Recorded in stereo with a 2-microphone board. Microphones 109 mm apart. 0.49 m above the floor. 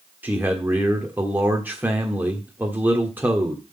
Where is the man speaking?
15° right (ahead or behind), 1.3 m.